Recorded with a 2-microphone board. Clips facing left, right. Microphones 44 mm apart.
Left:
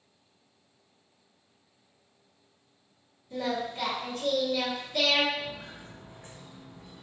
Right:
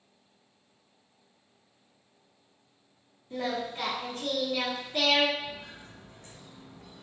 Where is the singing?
25° right (ahead or behind), 1.3 m.